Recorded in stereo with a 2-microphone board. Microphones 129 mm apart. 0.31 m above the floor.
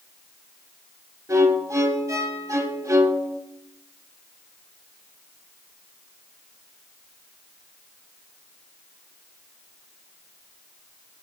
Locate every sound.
1.3 s a violin: 25° right (ahead or behind), 1.0 m